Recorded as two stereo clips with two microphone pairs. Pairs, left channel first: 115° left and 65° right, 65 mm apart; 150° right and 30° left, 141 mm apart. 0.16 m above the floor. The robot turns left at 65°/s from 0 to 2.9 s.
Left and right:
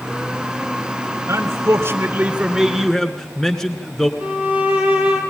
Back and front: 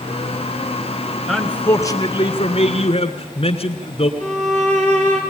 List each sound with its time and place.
1.3 s a man speaking: 55° right, 1.9 m; by 4.1 s 160° right, 1.9 m
4.2 s a violin: 5° left, 3.5 m